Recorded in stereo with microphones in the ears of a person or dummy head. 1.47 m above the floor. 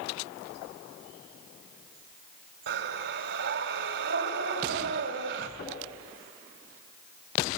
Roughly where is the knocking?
Left.